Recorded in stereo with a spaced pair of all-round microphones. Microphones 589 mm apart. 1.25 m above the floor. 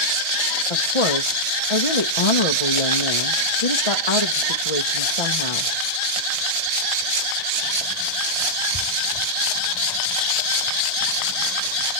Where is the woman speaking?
65° left (ahead or behind), 1.1 m.